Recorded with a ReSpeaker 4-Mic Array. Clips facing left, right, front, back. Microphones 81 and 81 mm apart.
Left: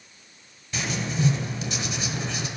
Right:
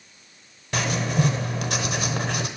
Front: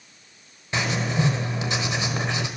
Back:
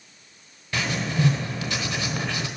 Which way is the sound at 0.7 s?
70° right.